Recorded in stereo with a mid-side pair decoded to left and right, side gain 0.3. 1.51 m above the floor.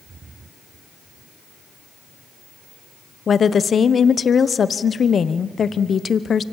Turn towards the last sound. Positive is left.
turn(degrees=60)